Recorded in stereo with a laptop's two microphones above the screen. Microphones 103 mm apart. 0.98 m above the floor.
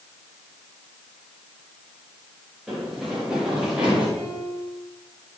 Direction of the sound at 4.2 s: 15° left (ahead or behind).